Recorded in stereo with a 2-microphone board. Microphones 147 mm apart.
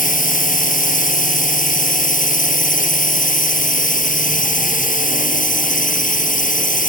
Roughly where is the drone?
Left.